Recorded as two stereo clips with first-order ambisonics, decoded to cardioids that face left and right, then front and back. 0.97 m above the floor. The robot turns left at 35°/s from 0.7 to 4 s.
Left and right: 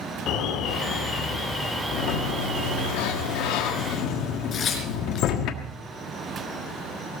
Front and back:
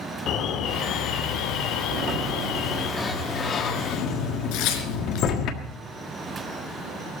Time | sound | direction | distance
0.3 | an alarm | 50° left | 1.5 m
1.9 | a sliding door | 120° left | 1.5 m
4.5 | tearing paper | 25° left | 4 m